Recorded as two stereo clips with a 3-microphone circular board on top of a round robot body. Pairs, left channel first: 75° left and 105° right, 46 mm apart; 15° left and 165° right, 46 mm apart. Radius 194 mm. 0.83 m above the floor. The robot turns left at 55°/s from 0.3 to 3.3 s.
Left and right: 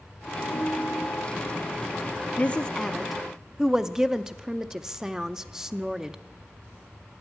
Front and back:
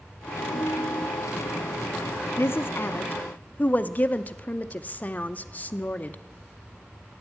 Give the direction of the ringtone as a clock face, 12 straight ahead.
11 o'clock.